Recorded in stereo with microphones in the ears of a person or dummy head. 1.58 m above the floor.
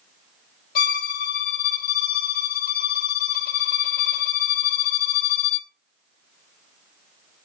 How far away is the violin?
About 0.7 m.